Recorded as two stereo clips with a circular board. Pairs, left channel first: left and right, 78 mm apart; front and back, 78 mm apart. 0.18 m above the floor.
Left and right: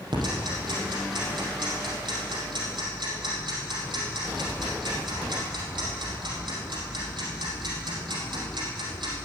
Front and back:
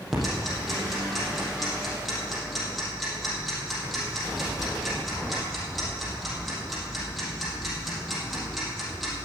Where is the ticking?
90° right, 4 m.